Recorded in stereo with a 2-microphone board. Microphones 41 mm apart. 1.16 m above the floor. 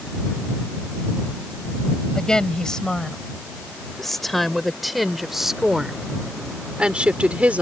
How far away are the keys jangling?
I don't hear keys jangling.